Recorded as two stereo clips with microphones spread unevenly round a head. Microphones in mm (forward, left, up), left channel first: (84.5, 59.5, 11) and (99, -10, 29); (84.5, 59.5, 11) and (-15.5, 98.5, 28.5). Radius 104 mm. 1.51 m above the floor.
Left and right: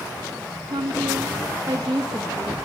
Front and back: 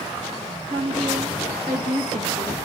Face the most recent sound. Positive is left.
turn(degrees=-160)